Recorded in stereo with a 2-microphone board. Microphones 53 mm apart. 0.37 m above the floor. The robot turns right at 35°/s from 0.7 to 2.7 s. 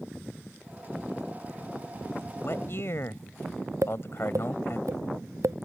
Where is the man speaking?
50° left (ahead or behind); by 4.8 s 55° left (ahead or behind).